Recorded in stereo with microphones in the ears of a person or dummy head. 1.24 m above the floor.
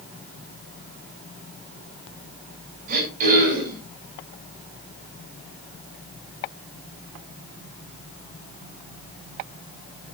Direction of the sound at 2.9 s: 45° right (ahead or behind).